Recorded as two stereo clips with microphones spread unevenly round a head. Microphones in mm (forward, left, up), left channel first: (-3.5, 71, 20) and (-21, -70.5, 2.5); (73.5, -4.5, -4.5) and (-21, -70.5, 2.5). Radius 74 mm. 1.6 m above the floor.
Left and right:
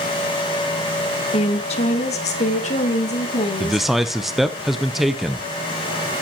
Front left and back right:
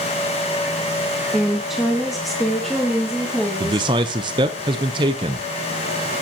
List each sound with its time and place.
1.3 s a woman speaking: 130° left, 1.4 m; by 3.9 s 125° left, 4 m
3.6 s a man speaking: 170° left, 0.7 m